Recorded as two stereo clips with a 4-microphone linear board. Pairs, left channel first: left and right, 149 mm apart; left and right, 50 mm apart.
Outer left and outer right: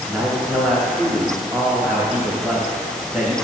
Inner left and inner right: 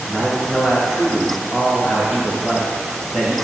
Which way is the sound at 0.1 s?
5° right (ahead or behind).